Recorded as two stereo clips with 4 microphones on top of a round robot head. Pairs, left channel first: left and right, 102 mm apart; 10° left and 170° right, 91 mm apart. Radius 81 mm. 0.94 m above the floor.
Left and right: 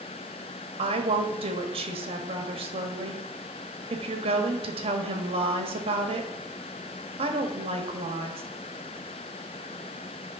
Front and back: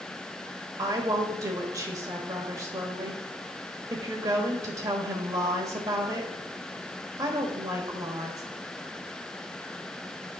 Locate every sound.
0.8 s a woman speaking: 115° right, 1.4 m